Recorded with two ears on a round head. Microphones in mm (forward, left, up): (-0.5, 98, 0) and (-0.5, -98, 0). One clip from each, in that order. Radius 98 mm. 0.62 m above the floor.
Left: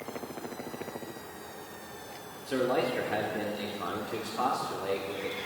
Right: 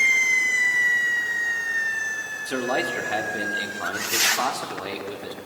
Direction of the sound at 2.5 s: 55° right (ahead or behind).